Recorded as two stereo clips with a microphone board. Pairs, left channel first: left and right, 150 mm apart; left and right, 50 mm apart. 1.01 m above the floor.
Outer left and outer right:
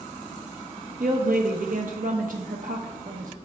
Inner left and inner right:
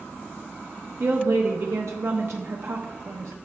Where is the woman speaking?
75° right (ahead or behind), 0.8 m.